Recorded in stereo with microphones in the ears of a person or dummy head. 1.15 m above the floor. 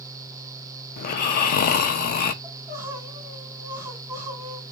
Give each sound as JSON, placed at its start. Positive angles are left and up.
{"t": 1.0, "sound": "snoring", "side_deg": 50, "distance_m": 0.6}
{"t": 2.4, "sound": "crying", "side_deg": -10, "distance_m": 2.5}